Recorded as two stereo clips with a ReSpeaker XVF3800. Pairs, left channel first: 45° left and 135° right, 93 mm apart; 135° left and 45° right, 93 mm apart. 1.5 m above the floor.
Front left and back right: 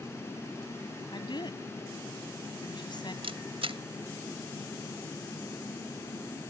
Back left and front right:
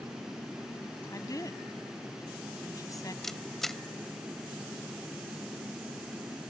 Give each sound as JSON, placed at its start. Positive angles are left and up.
{"t": 1.1, "sound": "a woman speaking", "azimuth_deg": 85}
{"t": 3.2, "sound": "a camera shutter", "azimuth_deg": -140}